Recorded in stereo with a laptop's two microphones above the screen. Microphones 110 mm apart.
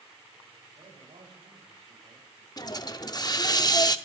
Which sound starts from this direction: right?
A man speaking, at 0.8 s.